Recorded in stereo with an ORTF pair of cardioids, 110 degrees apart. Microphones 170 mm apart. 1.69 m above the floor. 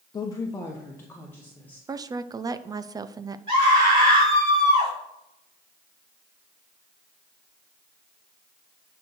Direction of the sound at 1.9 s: 20° right.